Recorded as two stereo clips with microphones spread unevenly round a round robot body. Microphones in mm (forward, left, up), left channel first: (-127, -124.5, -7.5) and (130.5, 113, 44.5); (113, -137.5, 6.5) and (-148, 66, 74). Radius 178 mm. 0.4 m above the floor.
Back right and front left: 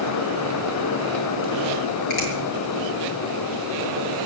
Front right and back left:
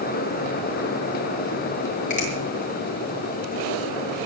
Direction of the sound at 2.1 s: 105° right.